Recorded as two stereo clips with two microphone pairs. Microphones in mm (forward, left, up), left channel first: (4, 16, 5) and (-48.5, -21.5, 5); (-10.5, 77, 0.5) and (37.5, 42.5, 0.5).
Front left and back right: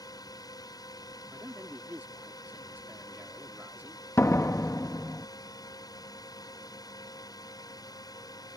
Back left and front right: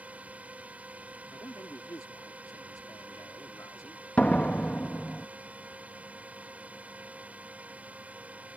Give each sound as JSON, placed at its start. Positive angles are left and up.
{"t": 0.0, "sound": "a drone", "azimuth_deg": 30}
{"t": 1.3, "sound": "a man speaking", "azimuth_deg": 150}
{"t": 4.2, "sound": "a door slam", "azimuth_deg": 75}